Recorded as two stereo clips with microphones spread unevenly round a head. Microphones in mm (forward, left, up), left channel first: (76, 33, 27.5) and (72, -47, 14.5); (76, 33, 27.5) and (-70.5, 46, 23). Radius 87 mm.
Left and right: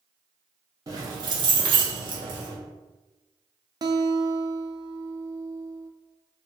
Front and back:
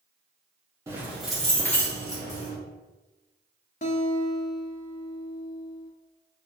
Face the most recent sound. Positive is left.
turn(degrees=-55)